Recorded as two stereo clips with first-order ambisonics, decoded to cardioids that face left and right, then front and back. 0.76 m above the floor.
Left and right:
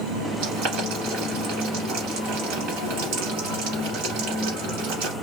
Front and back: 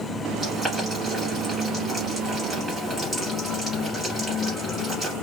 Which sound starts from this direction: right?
Boiling, at 0.4 s.